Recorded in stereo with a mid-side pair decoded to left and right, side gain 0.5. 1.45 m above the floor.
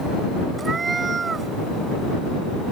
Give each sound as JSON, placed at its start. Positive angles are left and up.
{"t": 0.6, "sound": "a cat meowing", "azimuth_deg": -35}